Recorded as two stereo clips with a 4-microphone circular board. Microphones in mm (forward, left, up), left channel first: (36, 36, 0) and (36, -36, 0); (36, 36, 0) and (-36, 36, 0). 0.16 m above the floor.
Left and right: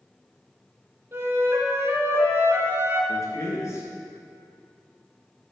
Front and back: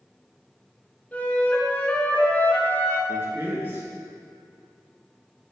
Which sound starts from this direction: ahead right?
A flute, at 1.1 s.